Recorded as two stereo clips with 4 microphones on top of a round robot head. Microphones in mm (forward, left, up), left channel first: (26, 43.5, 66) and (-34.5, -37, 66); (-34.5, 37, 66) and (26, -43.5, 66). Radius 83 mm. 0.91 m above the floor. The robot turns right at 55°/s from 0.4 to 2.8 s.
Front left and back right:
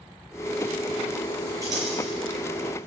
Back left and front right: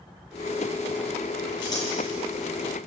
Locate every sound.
1.6 s scissors: 170° left, 9 m; by 1.9 s 170° right, 9 m